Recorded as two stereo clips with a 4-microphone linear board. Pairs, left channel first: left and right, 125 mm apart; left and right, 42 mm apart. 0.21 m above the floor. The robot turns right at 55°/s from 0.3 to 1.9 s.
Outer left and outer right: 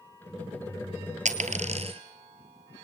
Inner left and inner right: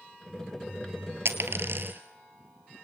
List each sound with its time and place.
1.2 s a dropped coin: 80° right, 1.7 m; by 2.0 s 55° right (ahead or behind), 1.7 m